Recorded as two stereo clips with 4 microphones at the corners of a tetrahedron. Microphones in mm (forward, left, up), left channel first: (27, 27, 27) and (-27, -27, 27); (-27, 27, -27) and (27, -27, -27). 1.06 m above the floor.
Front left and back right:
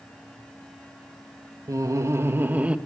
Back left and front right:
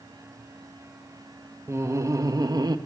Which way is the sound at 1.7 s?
95° right.